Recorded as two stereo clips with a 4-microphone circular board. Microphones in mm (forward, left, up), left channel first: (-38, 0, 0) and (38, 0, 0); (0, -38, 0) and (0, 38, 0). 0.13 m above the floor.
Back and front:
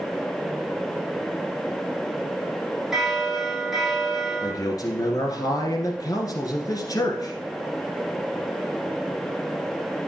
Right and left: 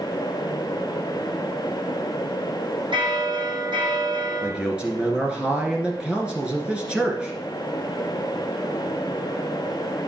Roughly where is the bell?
Left.